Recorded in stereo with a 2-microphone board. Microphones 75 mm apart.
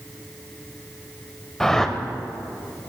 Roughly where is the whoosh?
Centre.